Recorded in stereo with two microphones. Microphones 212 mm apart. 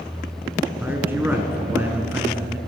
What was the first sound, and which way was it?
A man speaking, 10° right (ahead or behind).